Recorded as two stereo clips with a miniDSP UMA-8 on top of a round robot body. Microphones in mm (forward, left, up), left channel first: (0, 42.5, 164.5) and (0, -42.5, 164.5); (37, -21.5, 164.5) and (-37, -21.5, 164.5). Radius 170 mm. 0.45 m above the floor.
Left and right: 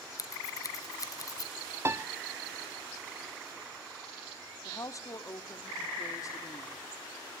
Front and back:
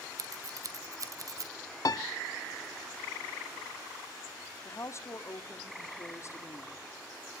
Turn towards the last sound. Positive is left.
turn(degrees=45)